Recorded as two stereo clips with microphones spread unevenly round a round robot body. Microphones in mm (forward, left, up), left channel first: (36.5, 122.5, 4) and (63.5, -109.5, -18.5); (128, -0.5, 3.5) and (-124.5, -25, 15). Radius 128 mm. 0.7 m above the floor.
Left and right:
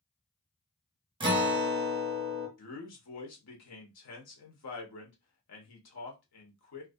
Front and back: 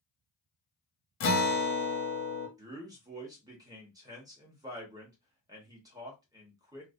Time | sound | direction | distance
1.2 | a guitar | 20° right | 0.7 m
2.6 | a man speaking | 110° left | 0.9 m